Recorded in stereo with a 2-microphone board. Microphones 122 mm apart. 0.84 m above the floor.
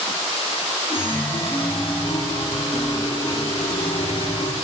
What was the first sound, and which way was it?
A chime, 45° left (ahead or behind).